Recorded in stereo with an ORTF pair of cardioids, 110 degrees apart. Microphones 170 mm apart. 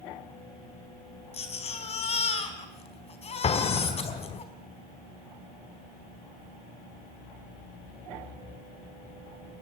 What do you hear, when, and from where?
1.3 s a baby crying: 40° left, 4 m
3.4 s an explosion: 40° left, 1.3 m